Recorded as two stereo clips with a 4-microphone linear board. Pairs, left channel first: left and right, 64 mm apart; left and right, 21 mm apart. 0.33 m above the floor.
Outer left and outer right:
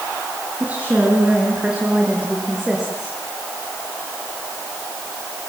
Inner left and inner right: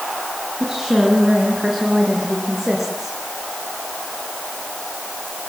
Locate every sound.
0.6 s a woman speaking: 25° right (ahead or behind), 3.5 m; by 3.1 s 5° right (ahead or behind), 5.5 m